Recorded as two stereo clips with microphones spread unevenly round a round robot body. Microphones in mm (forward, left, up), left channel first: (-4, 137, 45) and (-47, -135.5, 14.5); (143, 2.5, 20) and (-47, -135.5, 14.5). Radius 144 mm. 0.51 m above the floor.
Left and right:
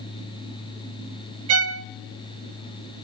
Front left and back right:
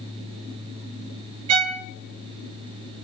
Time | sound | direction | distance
1.5 | a violin | 135° right | 0.7 m